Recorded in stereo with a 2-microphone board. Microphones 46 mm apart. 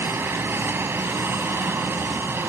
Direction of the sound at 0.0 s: 50° right (ahead or behind).